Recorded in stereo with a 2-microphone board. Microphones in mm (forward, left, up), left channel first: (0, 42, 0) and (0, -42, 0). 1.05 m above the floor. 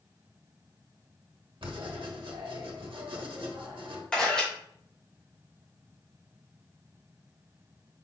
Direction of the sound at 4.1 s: 10° left (ahead or behind).